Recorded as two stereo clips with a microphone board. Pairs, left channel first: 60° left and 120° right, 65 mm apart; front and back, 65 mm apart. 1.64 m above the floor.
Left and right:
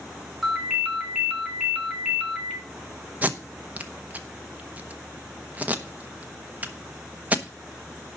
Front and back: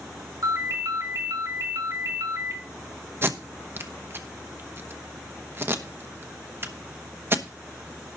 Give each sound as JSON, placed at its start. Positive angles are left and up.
{"t": 0.4, "sound": "a ringtone", "azimuth_deg": 155, "distance_m": 4.5}
{"t": 3.2, "sound": "tape being pulled", "azimuth_deg": -170, "distance_m": 1.0}